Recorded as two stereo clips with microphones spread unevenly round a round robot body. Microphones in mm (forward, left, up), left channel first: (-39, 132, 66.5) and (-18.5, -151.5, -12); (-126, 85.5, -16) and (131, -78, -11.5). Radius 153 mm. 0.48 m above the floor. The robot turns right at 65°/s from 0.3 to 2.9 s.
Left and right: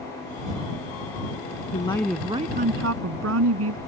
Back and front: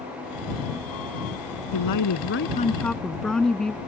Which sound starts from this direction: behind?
A woman speaking, at 1.7 s.